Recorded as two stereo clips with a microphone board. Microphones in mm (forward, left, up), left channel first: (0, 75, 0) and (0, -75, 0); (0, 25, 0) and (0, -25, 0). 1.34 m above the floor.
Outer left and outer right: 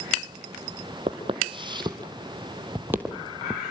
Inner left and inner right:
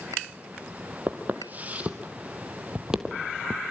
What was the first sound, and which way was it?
Footsteps, 40° right (ahead or behind).